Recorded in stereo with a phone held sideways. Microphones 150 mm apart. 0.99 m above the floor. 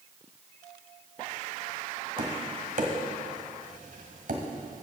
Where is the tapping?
70° right (ahead or behind), 1.7 m.